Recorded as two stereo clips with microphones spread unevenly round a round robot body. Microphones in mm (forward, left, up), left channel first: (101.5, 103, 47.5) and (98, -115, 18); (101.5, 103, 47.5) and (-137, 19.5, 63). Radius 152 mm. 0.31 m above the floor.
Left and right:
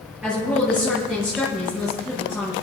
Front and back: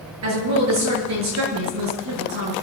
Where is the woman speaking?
175° right, 7.5 m.